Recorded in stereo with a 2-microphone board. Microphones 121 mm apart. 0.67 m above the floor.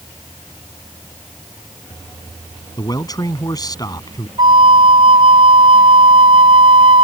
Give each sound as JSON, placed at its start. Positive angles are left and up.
{"t": 2.8, "sound": "a man speaking", "side_deg": 30}
{"t": 4.4, "sound": "a flute", "side_deg": -35}